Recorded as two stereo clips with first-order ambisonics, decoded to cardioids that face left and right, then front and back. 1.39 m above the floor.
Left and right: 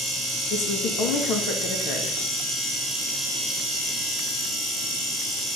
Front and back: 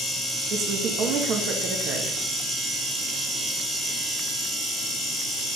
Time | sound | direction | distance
0.5 | a woman speaking | 130° left | 2 m